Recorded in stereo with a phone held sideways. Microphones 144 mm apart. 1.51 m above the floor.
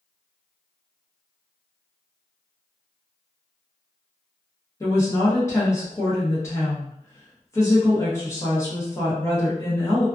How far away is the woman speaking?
About 0.8 m.